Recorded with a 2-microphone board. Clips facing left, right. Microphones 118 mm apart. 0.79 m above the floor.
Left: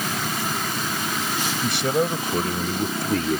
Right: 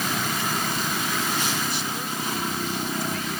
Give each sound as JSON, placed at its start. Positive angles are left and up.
{"t": 1.6, "sound": "a man speaking", "side_deg": 70}